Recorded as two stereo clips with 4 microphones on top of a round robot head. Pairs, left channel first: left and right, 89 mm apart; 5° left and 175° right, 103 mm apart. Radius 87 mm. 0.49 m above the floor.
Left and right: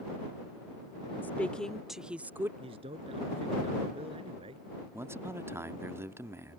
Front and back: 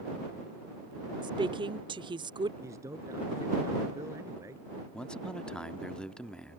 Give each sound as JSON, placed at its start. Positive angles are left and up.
{"t": 1.2, "sound": "a woman speaking", "azimuth_deg": 160}
{"t": 2.6, "sound": "a man speaking", "azimuth_deg": -110}
{"t": 4.9, "sound": "a man speaking", "azimuth_deg": -70}